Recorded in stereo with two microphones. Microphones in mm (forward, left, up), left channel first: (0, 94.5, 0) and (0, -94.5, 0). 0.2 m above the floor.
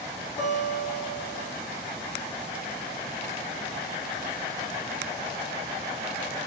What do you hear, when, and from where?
0.4 s a guitar: 45° left (ahead or behind), 1.0 m